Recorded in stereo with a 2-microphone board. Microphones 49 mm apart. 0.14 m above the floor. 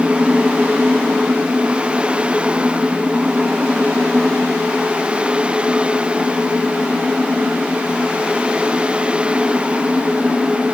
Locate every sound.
Only background noise.